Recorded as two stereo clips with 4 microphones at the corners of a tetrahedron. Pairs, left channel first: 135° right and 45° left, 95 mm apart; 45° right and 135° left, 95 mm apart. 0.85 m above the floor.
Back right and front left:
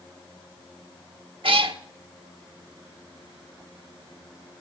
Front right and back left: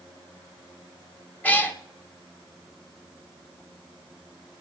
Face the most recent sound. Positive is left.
turn(degrees=25)